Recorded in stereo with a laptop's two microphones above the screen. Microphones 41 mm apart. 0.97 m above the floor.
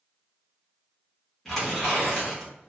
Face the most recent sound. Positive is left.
turn(degrees=5)  # may be behind; listen again after turning